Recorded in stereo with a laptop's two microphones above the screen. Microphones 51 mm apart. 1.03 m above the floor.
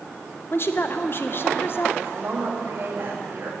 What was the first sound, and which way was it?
A woman speaking, 45° left (ahead or behind).